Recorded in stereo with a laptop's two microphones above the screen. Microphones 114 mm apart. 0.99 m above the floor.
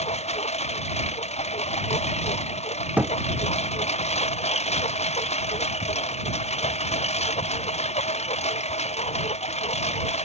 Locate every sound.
0.0 s a lawn mower: 70° left (ahead or behind)
3.0 s a thud: 15° right (ahead or behind)